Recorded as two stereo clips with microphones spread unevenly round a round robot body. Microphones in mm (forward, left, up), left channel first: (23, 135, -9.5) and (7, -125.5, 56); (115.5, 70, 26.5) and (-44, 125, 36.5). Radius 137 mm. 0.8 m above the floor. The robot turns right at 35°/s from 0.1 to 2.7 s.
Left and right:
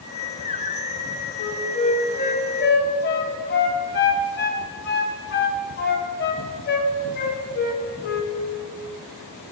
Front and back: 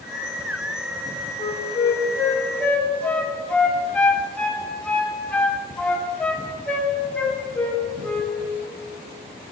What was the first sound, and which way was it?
A flute, 15° left.